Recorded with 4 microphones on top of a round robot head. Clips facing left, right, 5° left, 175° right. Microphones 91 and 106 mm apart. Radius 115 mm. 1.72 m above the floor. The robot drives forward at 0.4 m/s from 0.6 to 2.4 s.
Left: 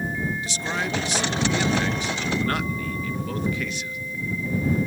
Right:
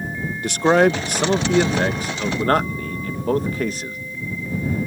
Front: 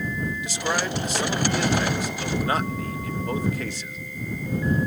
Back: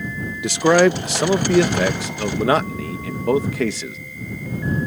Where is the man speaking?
140° right; by 4.0 s 150° right.